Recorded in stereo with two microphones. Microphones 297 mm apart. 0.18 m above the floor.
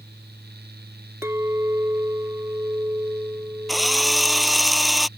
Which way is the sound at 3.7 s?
Centre (ahead or behind).